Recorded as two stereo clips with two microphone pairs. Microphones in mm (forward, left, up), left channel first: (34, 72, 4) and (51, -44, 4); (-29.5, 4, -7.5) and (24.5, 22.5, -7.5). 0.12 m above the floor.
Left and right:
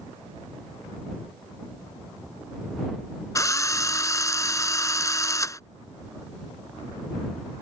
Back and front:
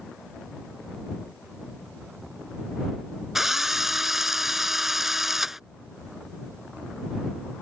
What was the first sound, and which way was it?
A drill, 95° left.